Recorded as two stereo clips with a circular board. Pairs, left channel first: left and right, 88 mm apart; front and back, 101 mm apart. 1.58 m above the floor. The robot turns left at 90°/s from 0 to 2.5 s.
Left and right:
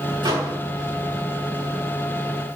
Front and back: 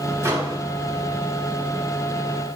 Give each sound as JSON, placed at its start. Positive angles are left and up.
{"t": 0.2, "sound": "a microwave", "azimuth_deg": -120, "distance_m": 1.9}